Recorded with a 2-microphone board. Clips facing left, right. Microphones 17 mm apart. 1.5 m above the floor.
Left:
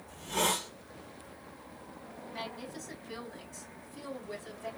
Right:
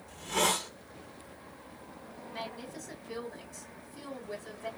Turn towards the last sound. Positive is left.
turn(degrees=0)  # may be behind; listen again after turning